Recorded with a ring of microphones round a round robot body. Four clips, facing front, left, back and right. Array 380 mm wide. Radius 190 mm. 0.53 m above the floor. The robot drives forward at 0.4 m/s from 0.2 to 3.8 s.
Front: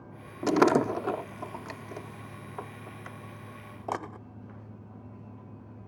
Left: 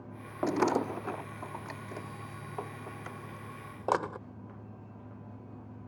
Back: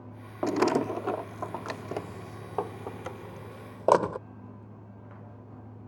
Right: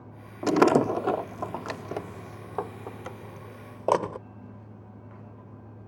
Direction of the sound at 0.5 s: 60° right.